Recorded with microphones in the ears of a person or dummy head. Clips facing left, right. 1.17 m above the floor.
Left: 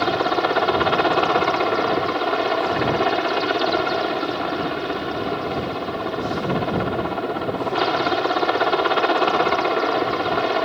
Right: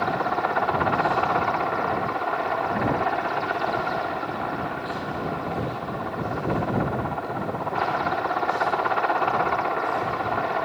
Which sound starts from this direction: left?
A helicopter, at 0.0 s.